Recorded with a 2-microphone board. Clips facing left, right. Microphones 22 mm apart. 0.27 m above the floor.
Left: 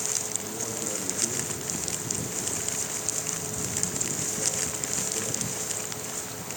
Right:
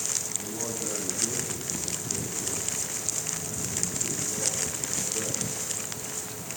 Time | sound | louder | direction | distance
0.4 | a man speaking | even | 15° right (ahead or behind) | 1.6 m